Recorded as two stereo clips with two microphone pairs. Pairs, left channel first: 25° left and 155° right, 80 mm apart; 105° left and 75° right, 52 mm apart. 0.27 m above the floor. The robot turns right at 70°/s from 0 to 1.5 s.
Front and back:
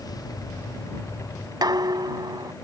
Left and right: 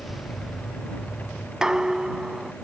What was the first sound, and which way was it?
Dishes clattering, 150° right.